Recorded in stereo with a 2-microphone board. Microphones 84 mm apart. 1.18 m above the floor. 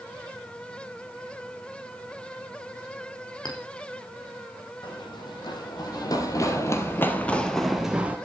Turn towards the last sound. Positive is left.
turn(degrees=-15)  # may be behind; listen again after turning